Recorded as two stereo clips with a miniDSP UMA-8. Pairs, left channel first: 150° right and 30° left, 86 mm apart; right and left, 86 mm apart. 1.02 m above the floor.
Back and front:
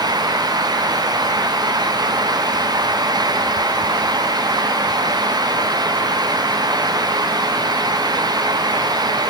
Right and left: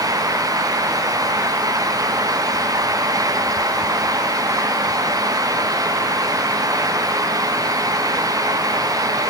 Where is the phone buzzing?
No phone buzzing in this recording.